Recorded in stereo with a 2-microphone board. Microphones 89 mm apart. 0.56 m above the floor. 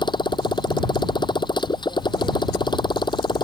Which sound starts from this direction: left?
A motorcycle, at 0.0 s.